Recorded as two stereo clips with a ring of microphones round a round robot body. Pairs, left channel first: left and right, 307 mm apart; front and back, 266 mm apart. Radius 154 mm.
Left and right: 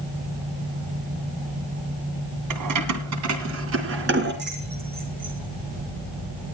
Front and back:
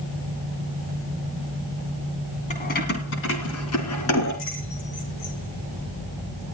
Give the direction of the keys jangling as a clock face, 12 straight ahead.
2 o'clock.